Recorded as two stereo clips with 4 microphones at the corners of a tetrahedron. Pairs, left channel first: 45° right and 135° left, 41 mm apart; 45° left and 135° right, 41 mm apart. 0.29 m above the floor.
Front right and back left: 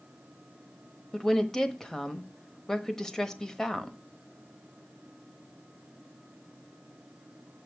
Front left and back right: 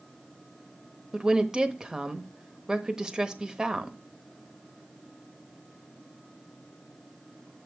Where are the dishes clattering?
I don't hear dishes clattering.